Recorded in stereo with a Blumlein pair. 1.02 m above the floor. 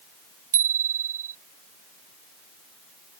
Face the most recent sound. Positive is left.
turn(degrees=-65)